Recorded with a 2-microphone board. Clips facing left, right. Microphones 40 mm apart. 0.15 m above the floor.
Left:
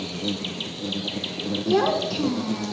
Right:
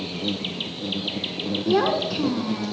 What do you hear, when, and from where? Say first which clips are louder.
0.0 s an insect: right 1 dB; 10° right (ahead or behind), 1.5 m
1.6 s a child speaking: even; 10° right (ahead or behind), 1.4 m